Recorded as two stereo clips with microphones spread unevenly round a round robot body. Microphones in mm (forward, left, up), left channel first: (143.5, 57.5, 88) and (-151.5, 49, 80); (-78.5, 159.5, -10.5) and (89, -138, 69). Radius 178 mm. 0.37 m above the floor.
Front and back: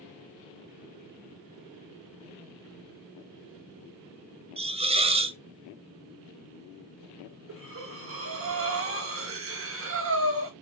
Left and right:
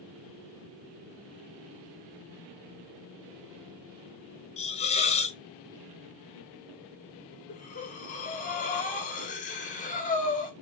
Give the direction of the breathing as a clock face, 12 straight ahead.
7 o'clock.